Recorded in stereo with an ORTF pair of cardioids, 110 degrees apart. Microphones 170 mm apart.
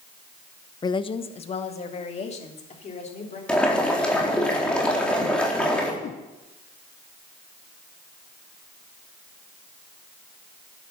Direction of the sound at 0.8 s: 25° left.